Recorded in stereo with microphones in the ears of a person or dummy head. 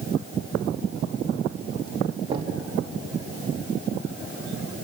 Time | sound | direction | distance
2.3 | knocking | 30° right (ahead or behind) | 2 m